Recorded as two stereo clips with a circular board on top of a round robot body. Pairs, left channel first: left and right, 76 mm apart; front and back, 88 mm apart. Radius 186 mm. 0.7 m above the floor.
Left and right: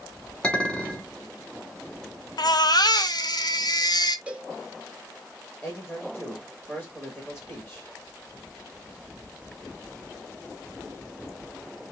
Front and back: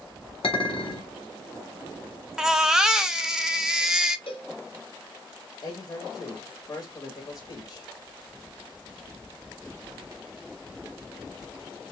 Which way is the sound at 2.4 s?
95° left.